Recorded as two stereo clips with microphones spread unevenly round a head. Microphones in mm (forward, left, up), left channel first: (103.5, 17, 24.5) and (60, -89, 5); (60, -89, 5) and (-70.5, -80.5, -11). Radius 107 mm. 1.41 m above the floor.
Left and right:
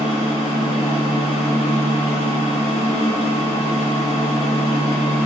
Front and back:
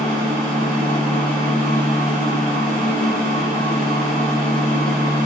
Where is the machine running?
175° right, 2.5 m.